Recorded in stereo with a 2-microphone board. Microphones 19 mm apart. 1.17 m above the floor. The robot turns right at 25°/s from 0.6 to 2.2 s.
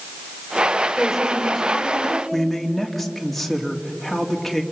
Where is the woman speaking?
Straight behind, 3.5 m; by 2.2 s 150° right, 3.5 m.